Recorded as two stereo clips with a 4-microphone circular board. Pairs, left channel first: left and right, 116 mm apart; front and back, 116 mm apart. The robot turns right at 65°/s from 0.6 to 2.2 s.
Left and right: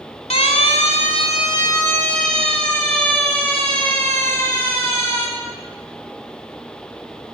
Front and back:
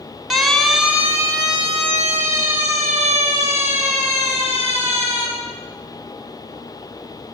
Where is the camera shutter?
No camera shutter in this recording.